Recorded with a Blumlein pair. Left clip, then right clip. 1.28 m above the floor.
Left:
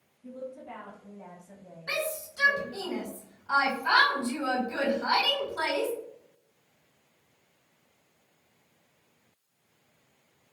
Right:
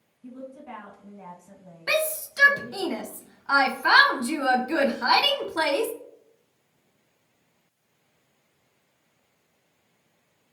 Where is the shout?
55° right, 0.6 m.